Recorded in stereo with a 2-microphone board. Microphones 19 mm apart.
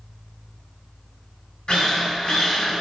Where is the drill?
45° left (ahead or behind), 1.4 m.